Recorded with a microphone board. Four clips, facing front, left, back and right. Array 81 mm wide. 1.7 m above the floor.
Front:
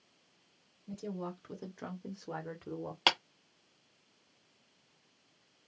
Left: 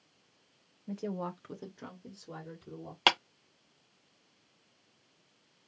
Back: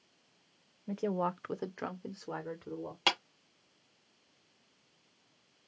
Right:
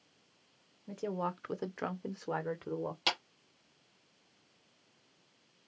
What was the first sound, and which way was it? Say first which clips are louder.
A woman speaking: right 1 dB, back 8 dB; straight behind.